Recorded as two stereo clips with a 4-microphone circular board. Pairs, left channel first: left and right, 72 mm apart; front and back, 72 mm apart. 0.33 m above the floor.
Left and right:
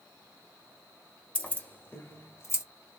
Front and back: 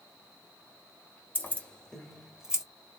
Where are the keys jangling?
35° left, 0.9 m; by 2.6 s 105° left, 1.0 m.